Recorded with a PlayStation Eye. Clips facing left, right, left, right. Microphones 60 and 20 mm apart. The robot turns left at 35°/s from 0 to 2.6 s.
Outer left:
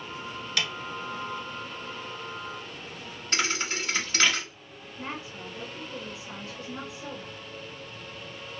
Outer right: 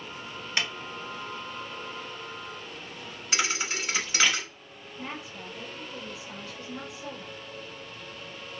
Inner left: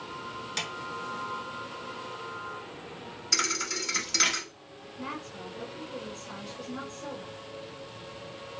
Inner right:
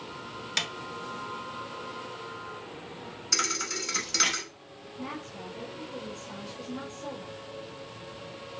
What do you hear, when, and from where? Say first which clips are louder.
0.6 s a snare drum: outer right 1 dB, inner right 4 dB; 30° right (ahead or behind), 0.6 m; by 0.7 s 35° right (ahead or behind), 0.6 m
3.3 s a thud: even, even; 5° right (ahead or behind), 0.8 m
5.0 s a woman speaking: outer left 1 dB, even; 20° left (ahead or behind), 1.5 m